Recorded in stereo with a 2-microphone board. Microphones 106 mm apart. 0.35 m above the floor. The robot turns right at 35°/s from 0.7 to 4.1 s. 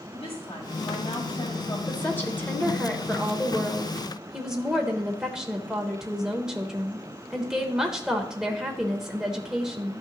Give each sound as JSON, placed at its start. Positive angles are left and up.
{"t": 0.1, "sound": "a woman speaking", "azimuth_deg": 95, "distance_m": 1.8}
{"t": 1.9, "sound": "a woman speaking", "side_deg": 20, "distance_m": 0.9}